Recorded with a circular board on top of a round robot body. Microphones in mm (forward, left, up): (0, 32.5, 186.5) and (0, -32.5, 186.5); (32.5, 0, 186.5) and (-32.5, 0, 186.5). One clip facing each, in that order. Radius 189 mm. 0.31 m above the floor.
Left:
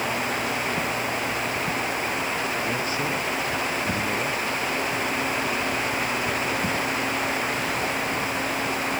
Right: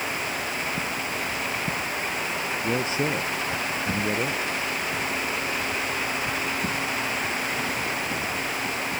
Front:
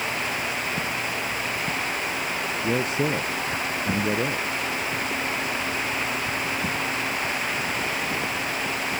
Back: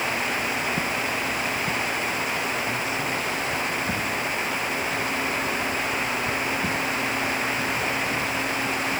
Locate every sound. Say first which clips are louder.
2.6 s a man speaking: right 1 dB, front 3 dB; 25° right; by 4.7 s 15° right